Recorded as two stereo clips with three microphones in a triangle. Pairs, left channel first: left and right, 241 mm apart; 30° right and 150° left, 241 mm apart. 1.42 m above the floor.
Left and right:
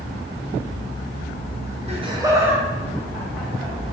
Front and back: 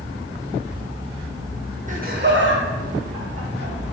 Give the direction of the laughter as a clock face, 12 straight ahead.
5 o'clock.